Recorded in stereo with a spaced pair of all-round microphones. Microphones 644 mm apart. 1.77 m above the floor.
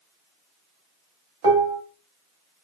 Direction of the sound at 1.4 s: 55° right (ahead or behind).